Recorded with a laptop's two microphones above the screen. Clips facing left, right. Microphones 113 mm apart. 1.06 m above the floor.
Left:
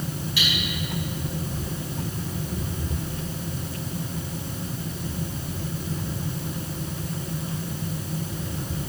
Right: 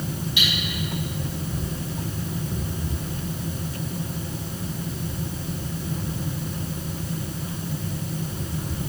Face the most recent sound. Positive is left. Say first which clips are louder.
# left 1 dB
turn(degrees=-20)  # may be behind; listen again after turning